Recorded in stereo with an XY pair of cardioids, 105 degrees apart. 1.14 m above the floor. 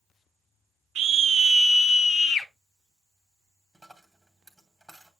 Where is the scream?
70° right, 1.1 m; by 2.5 s 60° left, 1.5 m.